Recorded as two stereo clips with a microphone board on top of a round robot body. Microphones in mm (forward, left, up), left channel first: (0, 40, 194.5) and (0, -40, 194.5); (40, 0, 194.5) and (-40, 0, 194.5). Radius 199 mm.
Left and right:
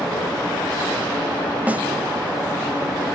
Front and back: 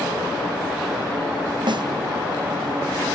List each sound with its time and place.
1.7 s a snare drum: 160° right, 1.5 m